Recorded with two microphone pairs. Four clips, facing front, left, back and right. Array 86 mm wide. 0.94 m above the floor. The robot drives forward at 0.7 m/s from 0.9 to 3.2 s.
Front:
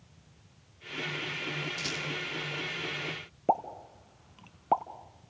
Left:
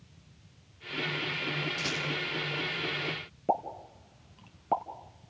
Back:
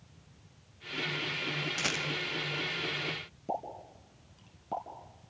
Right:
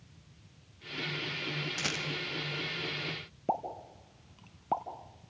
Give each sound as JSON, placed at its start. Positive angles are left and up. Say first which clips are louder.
{"t": 1.8, "sound": "a rattle", "louder": "left 2 dB, back 2 dB", "azimuth_deg": -155, "distance_m": 1.5}
{"t": 3.5, "sound": "a pop", "louder": "left 3 dB, front 8 dB", "azimuth_deg": 15, "distance_m": 1.3}